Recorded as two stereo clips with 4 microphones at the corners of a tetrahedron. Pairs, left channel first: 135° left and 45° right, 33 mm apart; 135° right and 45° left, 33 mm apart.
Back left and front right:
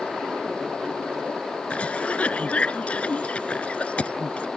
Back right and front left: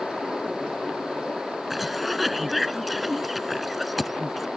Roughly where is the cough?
Behind left.